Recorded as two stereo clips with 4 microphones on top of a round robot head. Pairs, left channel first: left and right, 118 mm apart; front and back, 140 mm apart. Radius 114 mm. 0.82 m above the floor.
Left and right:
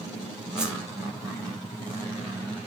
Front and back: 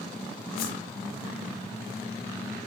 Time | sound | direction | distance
0.6 | a whoosh | 5° right | 4.5 m